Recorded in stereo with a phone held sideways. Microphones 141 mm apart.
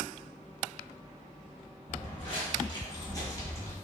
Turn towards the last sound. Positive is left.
turn(degrees=15)  # may be behind; listen again after turning